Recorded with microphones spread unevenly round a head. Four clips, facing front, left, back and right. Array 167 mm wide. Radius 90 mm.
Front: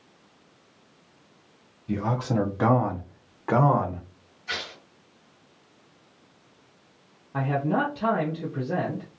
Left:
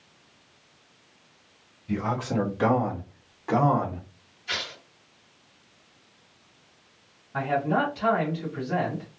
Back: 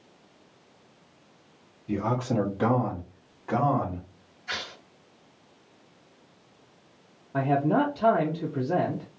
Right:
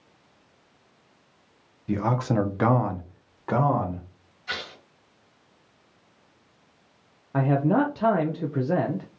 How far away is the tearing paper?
About 1.9 m.